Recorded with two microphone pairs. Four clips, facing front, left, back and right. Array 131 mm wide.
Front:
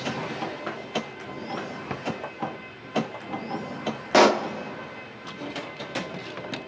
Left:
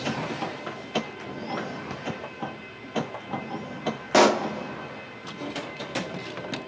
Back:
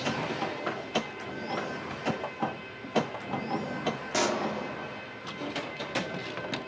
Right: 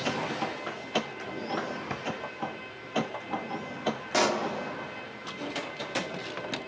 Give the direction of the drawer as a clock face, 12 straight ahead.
1 o'clock.